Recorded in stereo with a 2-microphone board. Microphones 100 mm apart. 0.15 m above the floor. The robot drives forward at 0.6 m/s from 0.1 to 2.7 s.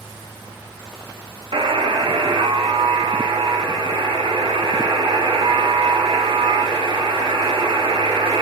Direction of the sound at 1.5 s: 55° right (ahead or behind).